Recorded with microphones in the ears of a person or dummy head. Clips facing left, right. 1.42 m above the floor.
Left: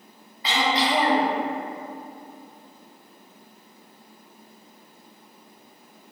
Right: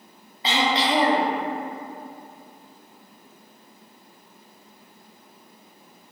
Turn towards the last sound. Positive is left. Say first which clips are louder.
# right 1 dB
turn(degrees=-25)  # may be behind; listen again after turning